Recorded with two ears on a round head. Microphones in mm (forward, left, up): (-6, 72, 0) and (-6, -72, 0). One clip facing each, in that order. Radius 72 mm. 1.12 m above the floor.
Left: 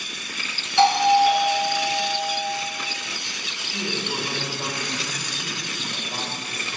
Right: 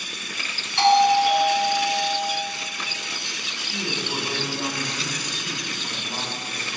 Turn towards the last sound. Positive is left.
turn(degrees=5)  # may be behind; listen again after turning